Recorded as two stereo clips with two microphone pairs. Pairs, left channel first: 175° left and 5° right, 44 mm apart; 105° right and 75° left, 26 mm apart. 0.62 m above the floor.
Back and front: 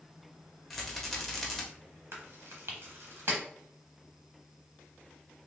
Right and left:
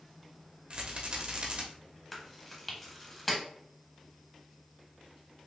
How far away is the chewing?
About 1.1 m.